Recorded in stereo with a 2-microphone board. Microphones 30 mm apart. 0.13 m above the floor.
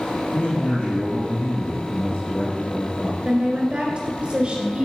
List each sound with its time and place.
0.3 s a man speaking: 55° left (ahead or behind), 2 m
3.2 s a woman speaking: 40° right (ahead or behind), 1.9 m